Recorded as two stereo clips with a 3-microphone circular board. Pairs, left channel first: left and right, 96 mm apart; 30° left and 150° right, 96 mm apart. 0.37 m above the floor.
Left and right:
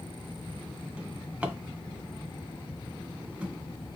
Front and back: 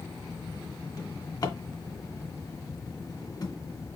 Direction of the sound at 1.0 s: 10° right.